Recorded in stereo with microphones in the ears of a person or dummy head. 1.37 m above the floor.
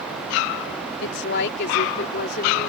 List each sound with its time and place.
1.0 s a woman speaking: 65° left (ahead or behind); by 2.7 s 50° left (ahead or behind)